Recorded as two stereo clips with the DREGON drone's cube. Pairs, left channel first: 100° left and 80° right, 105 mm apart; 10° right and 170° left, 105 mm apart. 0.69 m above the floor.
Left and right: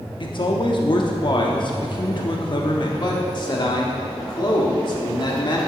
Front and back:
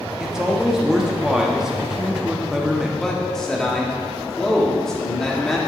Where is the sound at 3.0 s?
75° left, 1.7 m.